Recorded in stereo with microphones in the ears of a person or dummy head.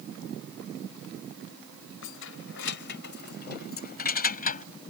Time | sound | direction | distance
2.0 | keys jangling | 80° left | ?